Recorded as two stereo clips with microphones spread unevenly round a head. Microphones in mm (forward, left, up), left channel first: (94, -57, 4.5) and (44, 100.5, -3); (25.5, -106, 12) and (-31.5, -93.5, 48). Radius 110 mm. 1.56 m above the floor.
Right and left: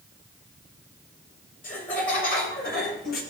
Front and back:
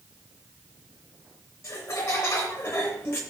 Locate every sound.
1.6 s laughter: 40° right, 6.5 m; by 3.2 s 55° right, 6 m